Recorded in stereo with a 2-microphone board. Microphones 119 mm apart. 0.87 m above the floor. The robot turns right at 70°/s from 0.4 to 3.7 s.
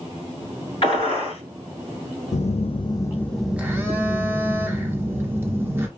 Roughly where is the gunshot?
Ahead left.